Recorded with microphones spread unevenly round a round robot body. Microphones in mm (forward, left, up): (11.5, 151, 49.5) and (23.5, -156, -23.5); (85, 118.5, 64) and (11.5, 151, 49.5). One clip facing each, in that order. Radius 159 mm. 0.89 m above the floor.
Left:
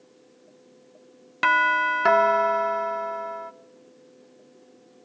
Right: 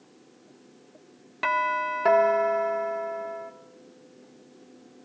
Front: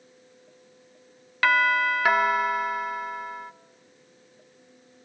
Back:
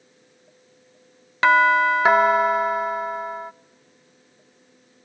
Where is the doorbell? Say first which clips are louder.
Left 2 dB, back 6 dB; 145° left, 0.8 m.